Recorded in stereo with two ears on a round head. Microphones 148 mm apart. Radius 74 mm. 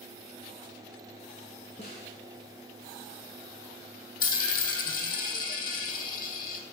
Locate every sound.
1.8 s a snare drum: 40° left (ahead or behind), 3 m
4.2 s a dropped coin: 55° left (ahead or behind), 1.2 m